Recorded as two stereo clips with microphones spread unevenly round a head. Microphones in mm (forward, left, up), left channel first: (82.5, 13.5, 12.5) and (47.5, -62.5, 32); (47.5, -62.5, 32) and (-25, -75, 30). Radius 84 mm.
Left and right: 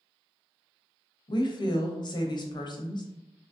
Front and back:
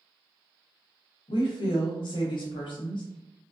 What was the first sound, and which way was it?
A woman speaking, 35° left.